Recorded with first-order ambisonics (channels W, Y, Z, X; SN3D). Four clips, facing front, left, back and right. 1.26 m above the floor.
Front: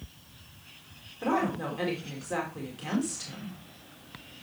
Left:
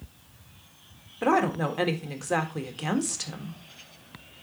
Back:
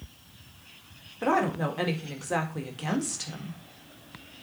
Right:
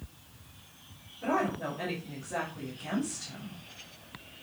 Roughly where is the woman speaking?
Left.